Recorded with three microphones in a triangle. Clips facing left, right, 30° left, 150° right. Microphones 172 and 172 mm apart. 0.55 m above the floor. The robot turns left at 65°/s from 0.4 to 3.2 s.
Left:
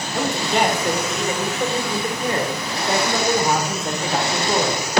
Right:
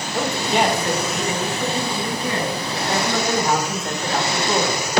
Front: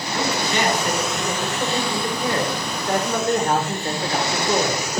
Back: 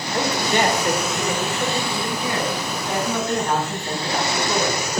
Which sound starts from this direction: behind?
A man speaking, at 0.1 s.